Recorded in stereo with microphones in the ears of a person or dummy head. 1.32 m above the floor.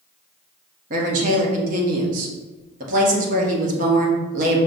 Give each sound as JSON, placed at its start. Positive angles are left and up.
{"t": 0.9, "sound": "a woman speaking", "side_deg": -45, "distance_m": 1.0}